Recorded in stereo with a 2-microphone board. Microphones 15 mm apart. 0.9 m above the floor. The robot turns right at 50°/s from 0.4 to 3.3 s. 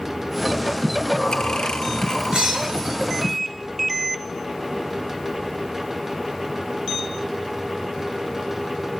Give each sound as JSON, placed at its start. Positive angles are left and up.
{"t": 0.8, "sound": "breathing", "side_deg": 25, "distance_m": 0.8}
{"t": 2.3, "sound": "breaking glass", "side_deg": -55, "distance_m": 8.5}